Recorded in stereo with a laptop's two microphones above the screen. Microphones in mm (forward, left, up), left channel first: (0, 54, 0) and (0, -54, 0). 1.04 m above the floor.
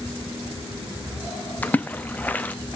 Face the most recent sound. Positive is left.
turn(degrees=15)  # may be behind; listen again after turning